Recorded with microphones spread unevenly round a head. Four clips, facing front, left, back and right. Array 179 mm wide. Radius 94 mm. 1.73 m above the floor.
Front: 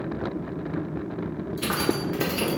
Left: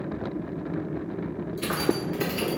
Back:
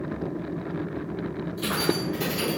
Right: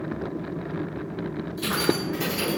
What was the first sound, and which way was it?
Keys jangling, 5° left.